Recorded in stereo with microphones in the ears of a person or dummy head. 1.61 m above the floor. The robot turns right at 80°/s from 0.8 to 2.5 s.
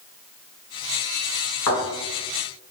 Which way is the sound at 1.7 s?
25° left (ahead or behind).